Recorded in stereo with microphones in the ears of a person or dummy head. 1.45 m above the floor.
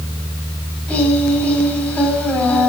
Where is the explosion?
No explosion in this recording.